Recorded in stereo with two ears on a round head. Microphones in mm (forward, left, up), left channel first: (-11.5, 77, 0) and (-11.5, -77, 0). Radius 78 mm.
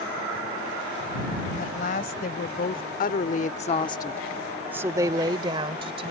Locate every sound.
1.6 s a woman speaking: 55° left (ahead or behind); by 6.1 s 35° right (ahead or behind)